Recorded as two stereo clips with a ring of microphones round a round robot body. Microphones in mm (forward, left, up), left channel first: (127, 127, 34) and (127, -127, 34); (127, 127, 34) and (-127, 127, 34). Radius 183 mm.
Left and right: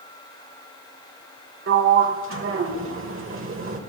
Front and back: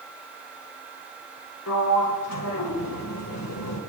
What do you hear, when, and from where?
1.7 s a sliding door: 50° right, 1.8 m